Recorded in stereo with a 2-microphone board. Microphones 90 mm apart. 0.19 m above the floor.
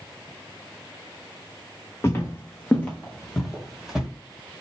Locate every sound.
2.0 s footsteps: 30° left (ahead or behind), 1.5 m; by 4.1 s 5° right (ahead or behind), 1.9 m